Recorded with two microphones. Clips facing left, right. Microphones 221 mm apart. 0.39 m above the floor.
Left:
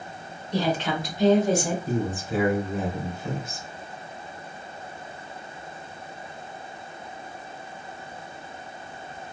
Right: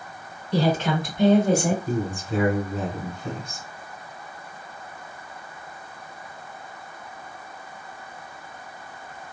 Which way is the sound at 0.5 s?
30° right (ahead or behind).